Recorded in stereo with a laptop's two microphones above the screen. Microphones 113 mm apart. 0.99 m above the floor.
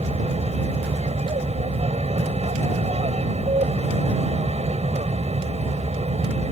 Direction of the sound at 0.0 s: 70° right (ahead or behind).